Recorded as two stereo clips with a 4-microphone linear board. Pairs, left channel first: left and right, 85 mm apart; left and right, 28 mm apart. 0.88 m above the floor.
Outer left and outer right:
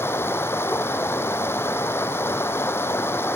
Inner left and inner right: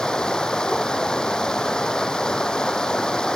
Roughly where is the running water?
Left.